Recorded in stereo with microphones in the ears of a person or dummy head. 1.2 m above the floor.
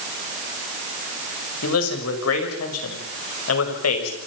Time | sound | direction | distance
1.6 | a man speaking | 90° left | 5 m